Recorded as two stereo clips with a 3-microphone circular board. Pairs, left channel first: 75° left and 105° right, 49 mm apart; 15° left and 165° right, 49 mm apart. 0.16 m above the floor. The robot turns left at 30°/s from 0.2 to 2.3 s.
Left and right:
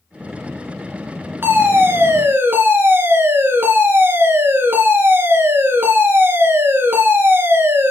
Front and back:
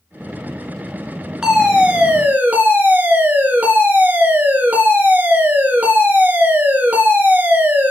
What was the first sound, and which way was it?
A fire alarm, 95° right.